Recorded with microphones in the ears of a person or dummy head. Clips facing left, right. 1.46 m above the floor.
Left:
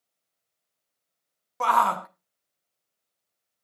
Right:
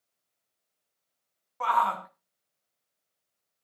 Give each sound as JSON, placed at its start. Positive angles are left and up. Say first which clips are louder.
{"t": 1.6, "sound": "a shout", "louder": "left 4 dB", "side_deg": 55, "distance_m": 0.9}